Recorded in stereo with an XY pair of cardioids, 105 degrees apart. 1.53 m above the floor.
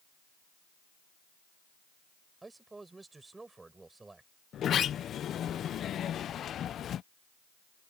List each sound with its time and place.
2.4 s a man speaking: 20° right
4.5 s a sliding door: 60° left